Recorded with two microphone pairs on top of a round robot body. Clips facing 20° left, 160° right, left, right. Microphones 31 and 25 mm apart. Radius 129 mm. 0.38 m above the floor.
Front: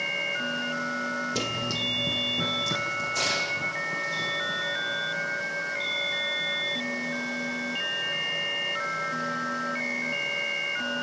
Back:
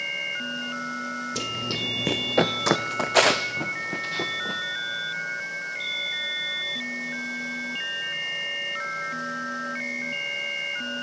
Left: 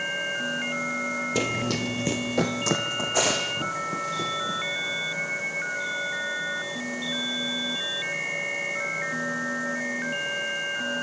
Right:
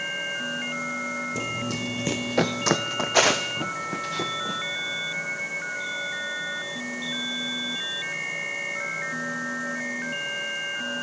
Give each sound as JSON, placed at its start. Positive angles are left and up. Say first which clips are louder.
{"t": 1.4, "sound": "running footsteps", "louder": "even, left 3 dB", "azimuth_deg": 95, "distance_m": 0.8}